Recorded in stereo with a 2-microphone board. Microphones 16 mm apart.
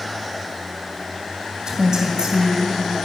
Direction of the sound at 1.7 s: 35° right (ahead or behind).